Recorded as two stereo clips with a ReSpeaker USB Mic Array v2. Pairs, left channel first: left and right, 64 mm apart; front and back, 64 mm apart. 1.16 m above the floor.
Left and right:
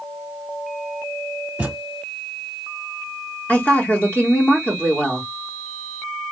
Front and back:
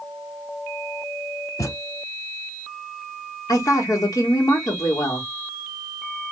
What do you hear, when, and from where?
1.6 s a thud: 15° right, 1.2 m
3.5 s a woman speaking: 25° left, 2 m